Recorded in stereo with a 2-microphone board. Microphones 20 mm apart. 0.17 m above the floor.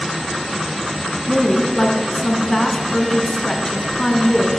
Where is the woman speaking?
20° left (ahead or behind), 1.7 m.